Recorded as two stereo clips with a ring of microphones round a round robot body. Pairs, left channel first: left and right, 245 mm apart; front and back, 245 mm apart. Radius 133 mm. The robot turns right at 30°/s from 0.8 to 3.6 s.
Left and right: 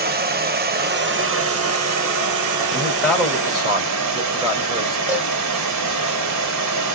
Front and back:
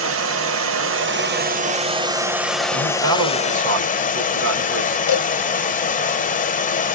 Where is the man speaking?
170° left, 1.8 m; by 5.0 s 160° right, 1.8 m.